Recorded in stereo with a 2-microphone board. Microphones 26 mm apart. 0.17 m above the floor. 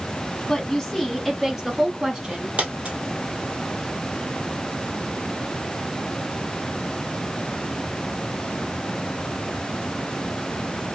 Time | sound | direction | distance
0.5 | a woman speaking | 20° left (ahead or behind) | 1.2 m
2.6 | a dropped coin | 50° right (ahead or behind) | 1.6 m